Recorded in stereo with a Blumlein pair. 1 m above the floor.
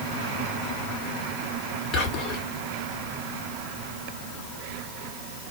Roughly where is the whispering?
Ahead left.